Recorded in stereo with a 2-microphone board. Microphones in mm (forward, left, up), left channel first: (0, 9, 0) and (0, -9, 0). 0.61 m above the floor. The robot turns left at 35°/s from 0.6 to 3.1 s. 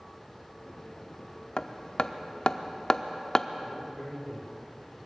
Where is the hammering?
65° left (ahead or behind), 0.6 m; by 3.5 s 35° left (ahead or behind), 0.6 m.